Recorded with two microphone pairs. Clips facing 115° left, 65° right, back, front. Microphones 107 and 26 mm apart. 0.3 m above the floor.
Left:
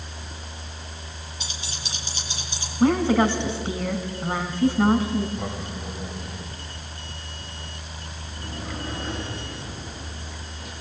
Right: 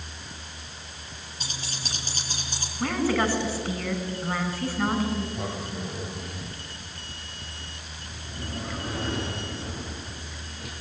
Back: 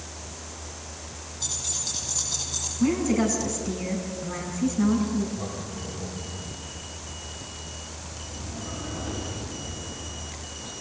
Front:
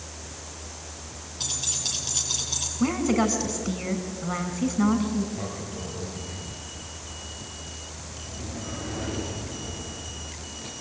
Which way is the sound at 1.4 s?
15° right.